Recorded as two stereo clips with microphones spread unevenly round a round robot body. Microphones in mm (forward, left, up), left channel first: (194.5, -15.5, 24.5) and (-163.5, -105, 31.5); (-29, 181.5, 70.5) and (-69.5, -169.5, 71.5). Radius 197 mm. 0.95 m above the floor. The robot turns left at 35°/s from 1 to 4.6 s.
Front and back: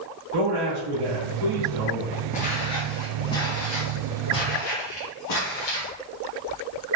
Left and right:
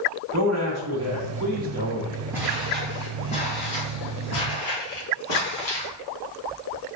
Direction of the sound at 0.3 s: 145° right.